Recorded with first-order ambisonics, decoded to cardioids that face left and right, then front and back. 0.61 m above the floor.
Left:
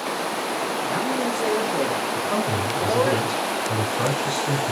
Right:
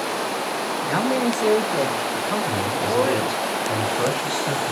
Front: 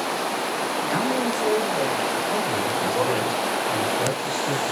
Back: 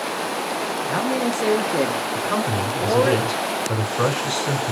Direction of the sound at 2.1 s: Straight behind.